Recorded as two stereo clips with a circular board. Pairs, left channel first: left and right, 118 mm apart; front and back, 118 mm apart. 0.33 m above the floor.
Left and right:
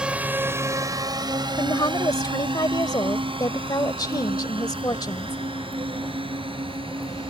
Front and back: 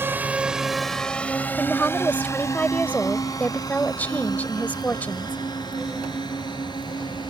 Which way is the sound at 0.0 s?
155° right.